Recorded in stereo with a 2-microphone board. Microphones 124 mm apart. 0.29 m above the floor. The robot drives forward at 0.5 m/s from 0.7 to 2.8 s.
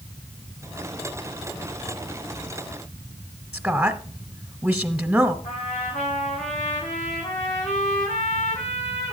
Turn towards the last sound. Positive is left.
turn(degrees=80)